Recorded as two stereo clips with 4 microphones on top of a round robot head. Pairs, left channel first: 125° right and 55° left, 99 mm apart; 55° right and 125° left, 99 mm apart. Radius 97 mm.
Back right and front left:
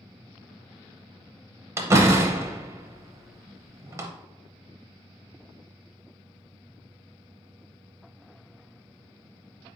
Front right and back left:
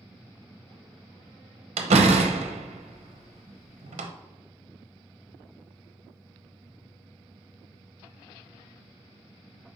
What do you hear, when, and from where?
1.8 s a door slam: 115° left, 0.7 m